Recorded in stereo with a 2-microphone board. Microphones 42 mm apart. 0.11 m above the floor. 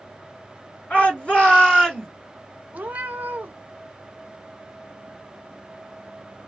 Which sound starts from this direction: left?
A shout, at 0.9 s.